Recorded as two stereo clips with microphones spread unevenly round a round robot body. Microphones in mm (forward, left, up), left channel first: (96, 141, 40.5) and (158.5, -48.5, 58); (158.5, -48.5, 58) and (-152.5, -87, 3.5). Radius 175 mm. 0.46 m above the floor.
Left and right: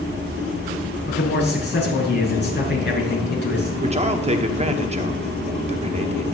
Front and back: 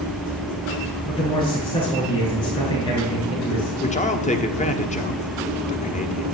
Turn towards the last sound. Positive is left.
turn(degrees=-55)